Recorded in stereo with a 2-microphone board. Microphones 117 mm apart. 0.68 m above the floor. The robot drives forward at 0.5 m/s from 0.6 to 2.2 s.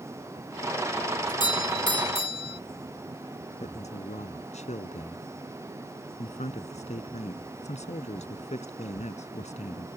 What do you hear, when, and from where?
1.3 s a doorbell: 40° left (ahead or behind); by 2.6 s 45° left (ahead or behind)
3.6 s a man speaking: 75° left (ahead or behind)